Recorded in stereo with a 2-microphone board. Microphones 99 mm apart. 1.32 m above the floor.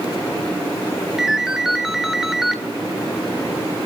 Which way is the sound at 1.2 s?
5° right (ahead or behind).